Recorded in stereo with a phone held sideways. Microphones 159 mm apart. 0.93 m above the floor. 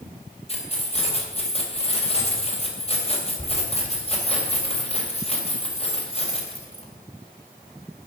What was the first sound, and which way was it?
Keys jangling, 40° left (ahead or behind).